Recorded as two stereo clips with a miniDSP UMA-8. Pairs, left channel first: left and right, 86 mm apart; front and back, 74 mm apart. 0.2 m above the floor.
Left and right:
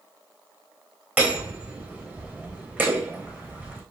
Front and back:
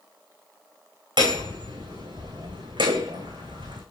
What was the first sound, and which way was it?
Hammering, 165° right.